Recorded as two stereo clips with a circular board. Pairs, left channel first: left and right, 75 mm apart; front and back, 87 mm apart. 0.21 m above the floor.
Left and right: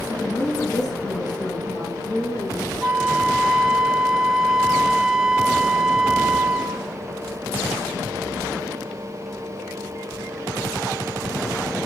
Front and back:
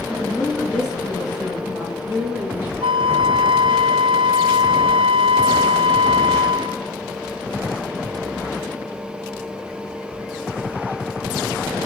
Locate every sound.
0.1 s a woman speaking: 85° left, 3 m; by 2.7 s 110° left, 4 m
2.8 s a flute: 175° right, 0.5 m